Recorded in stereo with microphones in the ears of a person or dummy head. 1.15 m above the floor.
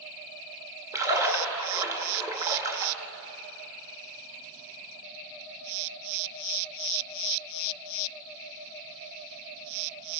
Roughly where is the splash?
Centre.